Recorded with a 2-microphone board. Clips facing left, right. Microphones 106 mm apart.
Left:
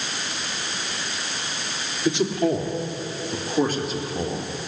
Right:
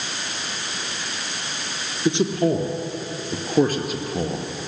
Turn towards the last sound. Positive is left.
turn(degrees=-55)  # may be behind; listen again after turning